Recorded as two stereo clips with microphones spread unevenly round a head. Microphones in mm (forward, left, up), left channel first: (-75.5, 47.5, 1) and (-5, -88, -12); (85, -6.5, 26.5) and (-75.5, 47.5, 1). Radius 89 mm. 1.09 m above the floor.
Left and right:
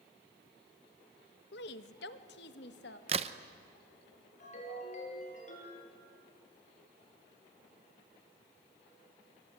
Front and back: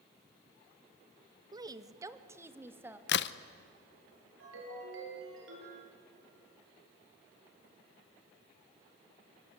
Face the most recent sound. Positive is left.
turn(degrees=155)